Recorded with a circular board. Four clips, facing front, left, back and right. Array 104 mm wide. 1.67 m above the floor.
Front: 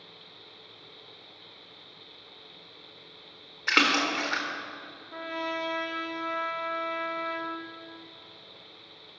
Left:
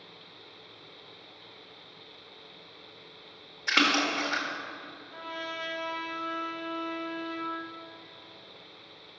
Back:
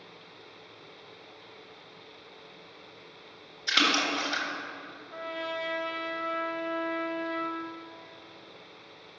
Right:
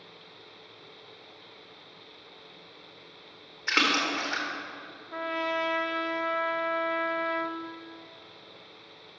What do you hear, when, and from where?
3.7 s a splash: 10° right, 1.6 m
5.1 s a trumpet: 80° right, 0.7 m